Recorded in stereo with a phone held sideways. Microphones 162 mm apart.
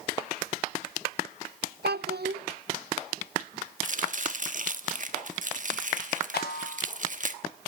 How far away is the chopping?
About 1.2 m.